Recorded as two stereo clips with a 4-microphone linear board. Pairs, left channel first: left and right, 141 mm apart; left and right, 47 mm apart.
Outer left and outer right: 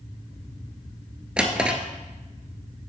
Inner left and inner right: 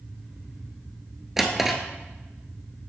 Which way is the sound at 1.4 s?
10° right (ahead or behind).